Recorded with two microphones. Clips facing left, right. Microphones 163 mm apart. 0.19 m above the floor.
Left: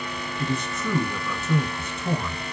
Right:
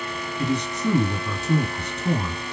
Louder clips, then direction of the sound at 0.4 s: Right 4 dB; 20° right (ahead or behind).